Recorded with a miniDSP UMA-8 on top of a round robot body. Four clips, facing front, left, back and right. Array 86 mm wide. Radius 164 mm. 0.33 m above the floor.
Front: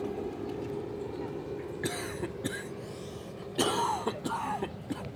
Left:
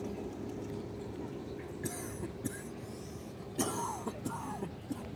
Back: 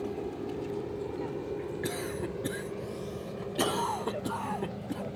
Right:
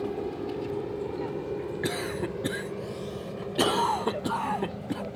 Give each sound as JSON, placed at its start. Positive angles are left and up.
{"t": 0.0, "sound": "an aircraft", "azimuth_deg": -85}
{"t": 1.8, "sound": "a cough", "azimuth_deg": -85}